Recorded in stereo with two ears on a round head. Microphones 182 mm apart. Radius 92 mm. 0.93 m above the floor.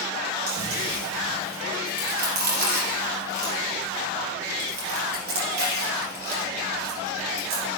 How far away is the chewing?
About 3.5 m.